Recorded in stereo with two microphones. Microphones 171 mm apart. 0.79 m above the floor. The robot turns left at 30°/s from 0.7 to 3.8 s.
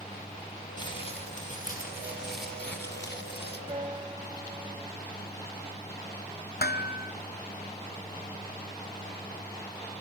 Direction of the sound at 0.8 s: 155° left.